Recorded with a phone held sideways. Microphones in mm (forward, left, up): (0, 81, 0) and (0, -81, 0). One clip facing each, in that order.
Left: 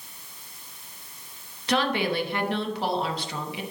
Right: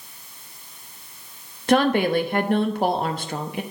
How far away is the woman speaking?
About 0.9 m.